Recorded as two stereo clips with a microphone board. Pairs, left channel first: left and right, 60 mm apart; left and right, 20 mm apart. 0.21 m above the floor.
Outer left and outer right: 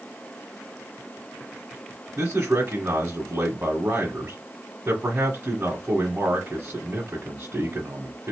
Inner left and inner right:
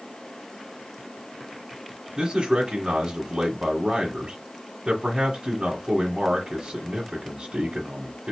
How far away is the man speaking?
About 1.1 m.